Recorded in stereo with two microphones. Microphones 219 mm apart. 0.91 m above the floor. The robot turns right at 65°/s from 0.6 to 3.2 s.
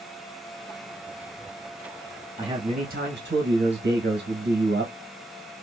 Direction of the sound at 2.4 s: 160° right.